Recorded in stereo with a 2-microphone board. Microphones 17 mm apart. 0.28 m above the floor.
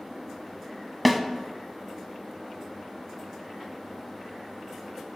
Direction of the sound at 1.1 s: 5° right (ahead or behind).